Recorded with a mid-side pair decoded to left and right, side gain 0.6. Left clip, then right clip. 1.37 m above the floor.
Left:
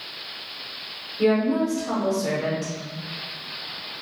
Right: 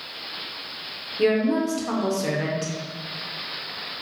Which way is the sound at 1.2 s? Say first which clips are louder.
Even; 40° right.